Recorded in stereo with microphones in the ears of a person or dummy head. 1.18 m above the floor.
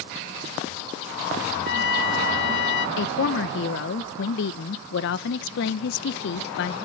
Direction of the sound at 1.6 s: 60° left (ahead or behind).